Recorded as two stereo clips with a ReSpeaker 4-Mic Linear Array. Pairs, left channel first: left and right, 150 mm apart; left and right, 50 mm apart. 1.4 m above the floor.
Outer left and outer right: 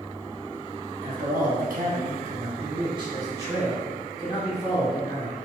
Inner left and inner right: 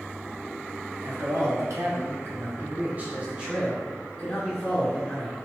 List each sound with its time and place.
1.0 s a man speaking: 70° right (ahead or behind), 1.0 m; by 5.3 s centre (ahead or behind), 2.0 m